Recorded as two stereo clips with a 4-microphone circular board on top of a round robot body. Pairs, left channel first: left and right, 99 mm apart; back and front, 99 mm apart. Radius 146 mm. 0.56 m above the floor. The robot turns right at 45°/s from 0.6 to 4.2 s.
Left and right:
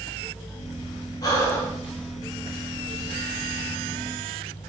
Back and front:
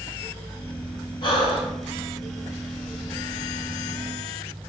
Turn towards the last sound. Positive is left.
turn(degrees=-85)